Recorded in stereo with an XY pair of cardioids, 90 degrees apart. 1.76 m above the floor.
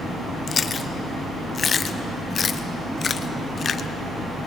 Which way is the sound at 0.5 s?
50° left.